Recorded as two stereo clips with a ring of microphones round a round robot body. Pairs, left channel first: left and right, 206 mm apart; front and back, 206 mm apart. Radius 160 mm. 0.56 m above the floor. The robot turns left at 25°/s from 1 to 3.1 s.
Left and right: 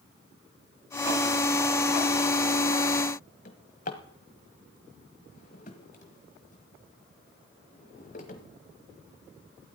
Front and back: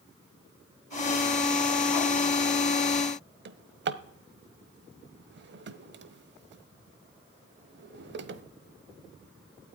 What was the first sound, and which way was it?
A drawer, 150° left.